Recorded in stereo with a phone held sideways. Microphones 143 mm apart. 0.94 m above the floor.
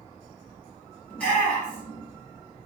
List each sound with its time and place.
1.1 s a shout: 10° left (ahead or behind), 1.8 m